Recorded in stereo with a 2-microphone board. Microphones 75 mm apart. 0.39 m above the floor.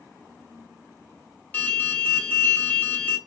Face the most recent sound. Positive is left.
turn(degrees=20)  # may be behind; listen again after turning